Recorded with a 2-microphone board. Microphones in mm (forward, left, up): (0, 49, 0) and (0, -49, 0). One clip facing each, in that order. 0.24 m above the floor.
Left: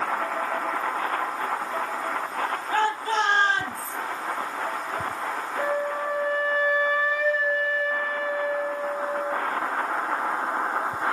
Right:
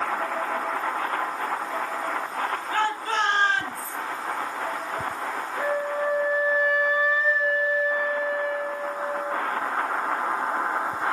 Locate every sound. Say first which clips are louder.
2.7 s a shout: left 2 dB; 35° left (ahead or behind), 5 m; by 4.0 s 30° left (ahead or behind), 5 m
5.6 s a flute: right 1 dB; 55° left (ahead or behind), 4.5 m